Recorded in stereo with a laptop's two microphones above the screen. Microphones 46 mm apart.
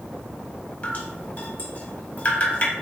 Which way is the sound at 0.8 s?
35° left (ahead or behind).